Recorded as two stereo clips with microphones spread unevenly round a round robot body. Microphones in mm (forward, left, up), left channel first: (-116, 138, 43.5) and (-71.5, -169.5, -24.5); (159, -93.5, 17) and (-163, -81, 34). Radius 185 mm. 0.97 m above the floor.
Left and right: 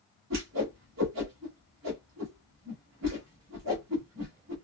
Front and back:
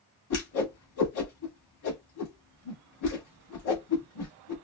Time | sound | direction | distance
0.3 | a whoosh | 25° right | 1.4 m